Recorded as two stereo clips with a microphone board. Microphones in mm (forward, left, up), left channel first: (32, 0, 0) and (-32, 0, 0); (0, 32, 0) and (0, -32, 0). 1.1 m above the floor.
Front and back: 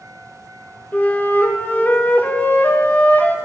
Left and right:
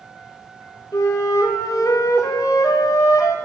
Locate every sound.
0.9 s a flute: 65° left, 0.9 m